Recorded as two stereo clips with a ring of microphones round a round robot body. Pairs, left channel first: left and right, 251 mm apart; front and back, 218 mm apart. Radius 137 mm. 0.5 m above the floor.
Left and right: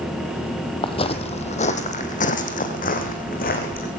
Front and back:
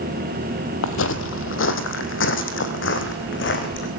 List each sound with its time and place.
0.8 s footsteps: 20° left, 1.0 m; by 3.9 s 35° left, 2.5 m